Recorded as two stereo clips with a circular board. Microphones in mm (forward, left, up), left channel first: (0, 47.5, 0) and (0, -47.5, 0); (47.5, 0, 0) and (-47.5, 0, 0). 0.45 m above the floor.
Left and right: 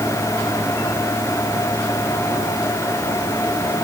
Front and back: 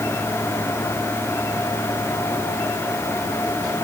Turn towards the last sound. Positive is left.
No sound to turn to.